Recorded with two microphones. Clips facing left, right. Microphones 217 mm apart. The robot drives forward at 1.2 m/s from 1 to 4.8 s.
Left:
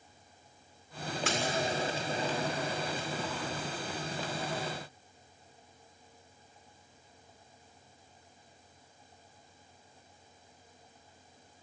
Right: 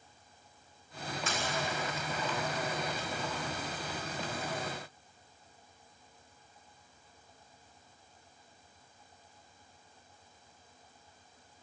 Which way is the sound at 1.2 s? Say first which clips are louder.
Left 5 dB; 80° left.